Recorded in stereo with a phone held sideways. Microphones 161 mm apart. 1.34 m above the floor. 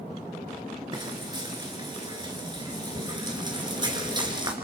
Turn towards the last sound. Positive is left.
turn(degrees=-30)  # may be behind; listen again after turning